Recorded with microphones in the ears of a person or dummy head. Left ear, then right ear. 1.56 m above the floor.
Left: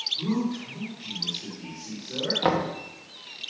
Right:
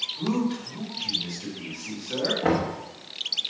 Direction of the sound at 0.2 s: 25° right (ahead or behind).